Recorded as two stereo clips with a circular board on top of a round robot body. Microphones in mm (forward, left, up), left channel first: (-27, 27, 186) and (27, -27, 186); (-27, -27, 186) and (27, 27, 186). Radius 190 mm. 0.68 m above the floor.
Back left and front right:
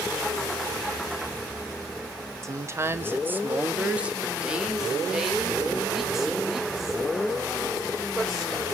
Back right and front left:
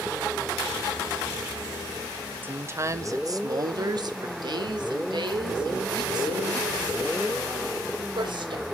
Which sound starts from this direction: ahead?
A woman speaking, at 2.4 s.